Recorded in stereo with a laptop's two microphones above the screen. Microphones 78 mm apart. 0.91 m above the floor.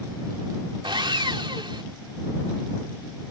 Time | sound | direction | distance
0.8 | sawing | 75° right (ahead or behind) | ?